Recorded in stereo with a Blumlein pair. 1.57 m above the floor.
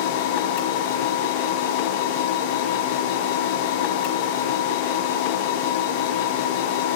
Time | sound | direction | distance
0.0 | a machine running | 45° left | 1.3 m